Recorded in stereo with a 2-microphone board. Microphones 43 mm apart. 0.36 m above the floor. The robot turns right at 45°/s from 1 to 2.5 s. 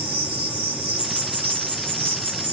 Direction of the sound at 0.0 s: 145° right.